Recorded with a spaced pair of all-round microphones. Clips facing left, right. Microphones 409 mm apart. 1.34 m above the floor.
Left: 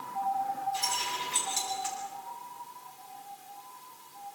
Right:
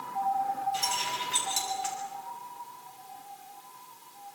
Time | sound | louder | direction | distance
0.7 | keys jangling | right 2 dB | 90° right | 6 m